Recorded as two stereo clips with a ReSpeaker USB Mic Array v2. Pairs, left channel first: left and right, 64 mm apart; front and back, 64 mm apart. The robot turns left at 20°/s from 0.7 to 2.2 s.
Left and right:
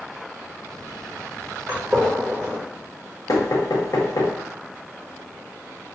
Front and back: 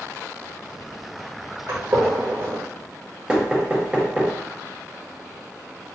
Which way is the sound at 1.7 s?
140° right.